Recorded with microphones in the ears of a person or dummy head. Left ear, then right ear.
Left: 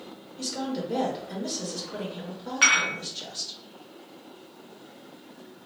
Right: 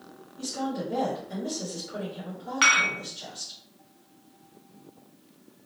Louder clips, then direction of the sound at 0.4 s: Even; 75° left (ahead or behind).